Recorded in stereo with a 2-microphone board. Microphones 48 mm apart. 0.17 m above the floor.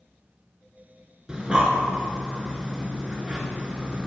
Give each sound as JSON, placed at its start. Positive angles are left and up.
{"t": 1.3, "sound": "breathing", "side_deg": -20, "distance_m": 0.7}